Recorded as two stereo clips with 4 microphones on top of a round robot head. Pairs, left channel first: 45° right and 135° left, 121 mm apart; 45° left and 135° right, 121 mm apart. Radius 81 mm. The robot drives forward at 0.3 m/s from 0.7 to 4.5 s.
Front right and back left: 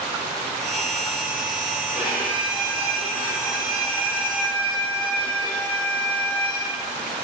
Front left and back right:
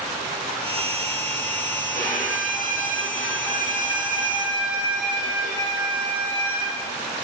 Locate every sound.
1.9 s a violin: 145° right, 4 m; by 6.7 s 150° right, 4.5 m